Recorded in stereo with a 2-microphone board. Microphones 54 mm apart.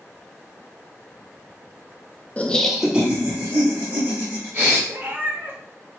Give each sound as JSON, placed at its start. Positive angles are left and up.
{"t": 2.4, "sound": "laughter", "side_deg": 25, "distance_m": 0.6}
{"t": 4.9, "sound": "a cat meowing", "side_deg": -40, "distance_m": 0.8}